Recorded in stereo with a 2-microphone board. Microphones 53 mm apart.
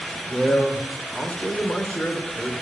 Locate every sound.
0.2 s a man speaking: 20° left (ahead or behind), 2.5 m